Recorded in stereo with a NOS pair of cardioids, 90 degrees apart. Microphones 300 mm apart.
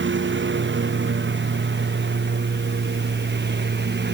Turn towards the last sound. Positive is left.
turn(degrees=-35)